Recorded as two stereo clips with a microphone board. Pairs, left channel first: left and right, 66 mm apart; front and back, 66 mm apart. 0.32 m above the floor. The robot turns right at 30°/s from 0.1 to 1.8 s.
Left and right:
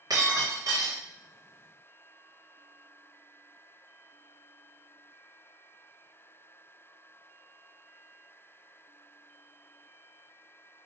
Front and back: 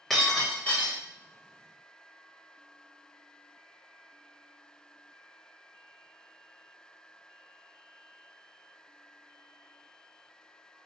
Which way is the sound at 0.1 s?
90° right.